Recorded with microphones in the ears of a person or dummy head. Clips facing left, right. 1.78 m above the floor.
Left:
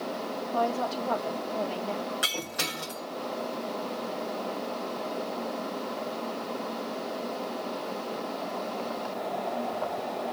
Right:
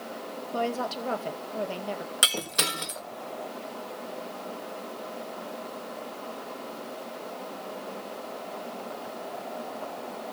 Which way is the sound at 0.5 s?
25° right (ahead or behind).